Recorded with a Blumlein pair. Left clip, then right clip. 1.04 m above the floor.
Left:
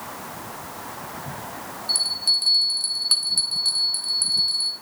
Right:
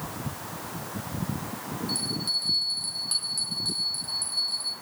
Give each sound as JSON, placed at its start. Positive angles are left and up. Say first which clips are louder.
{"t": 1.9, "sound": "a bell", "louder": "left 8 dB", "azimuth_deg": 25, "distance_m": 0.9}